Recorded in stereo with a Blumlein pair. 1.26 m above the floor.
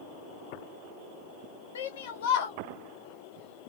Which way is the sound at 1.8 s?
65° left.